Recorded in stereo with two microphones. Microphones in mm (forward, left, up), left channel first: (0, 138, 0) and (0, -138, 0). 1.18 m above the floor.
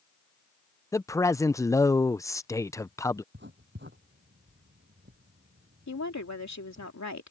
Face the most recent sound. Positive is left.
turn(degrees=75)  # may be behind; listen again after turning